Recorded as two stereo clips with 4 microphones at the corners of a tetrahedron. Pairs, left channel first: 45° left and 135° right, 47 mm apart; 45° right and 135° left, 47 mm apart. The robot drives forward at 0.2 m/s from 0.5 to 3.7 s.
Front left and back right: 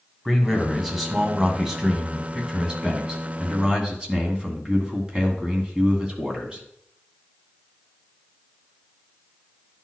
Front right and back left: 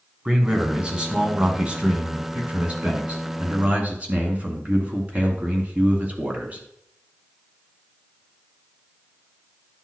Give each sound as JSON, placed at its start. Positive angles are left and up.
{"t": 0.2, "sound": "a man speaking", "azimuth_deg": 150, "distance_m": 1.4}